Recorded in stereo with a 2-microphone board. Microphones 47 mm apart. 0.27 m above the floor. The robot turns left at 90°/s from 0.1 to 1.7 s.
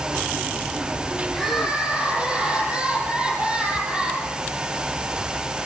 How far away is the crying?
About 8 m.